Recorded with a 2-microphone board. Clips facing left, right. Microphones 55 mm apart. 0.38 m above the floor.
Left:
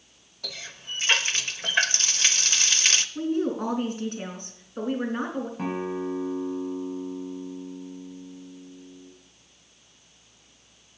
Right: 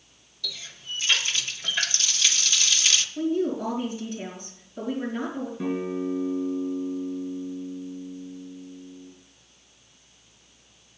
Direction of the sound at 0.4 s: 45° left (ahead or behind).